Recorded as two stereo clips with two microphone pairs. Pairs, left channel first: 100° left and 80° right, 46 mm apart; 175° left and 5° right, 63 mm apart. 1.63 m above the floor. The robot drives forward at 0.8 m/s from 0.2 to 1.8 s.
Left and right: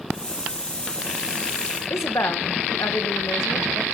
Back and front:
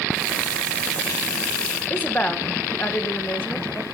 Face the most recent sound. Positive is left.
turn(degrees=110)